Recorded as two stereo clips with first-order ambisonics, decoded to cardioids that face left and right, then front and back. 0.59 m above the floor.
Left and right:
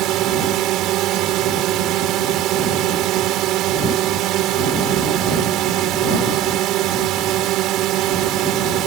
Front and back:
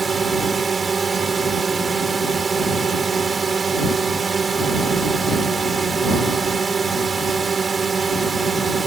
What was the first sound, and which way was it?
A drone, 110° right.